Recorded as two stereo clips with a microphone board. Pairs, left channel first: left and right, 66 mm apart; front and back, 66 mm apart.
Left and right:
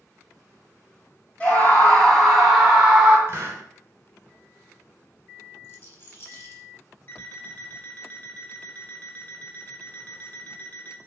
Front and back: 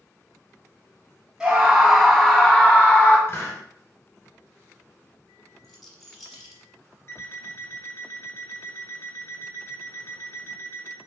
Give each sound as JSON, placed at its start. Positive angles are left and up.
{"t": 1.4, "sound": "a scream", "azimuth_deg": 115, "distance_m": 1.1}
{"t": 3.3, "sound": "a hiss", "azimuth_deg": -45, "distance_m": 2.0}
{"t": 5.6, "sound": "a rattle", "azimuth_deg": 95, "distance_m": 1.2}
{"t": 7.1, "sound": "an alarm clock", "azimuth_deg": 35, "distance_m": 1.0}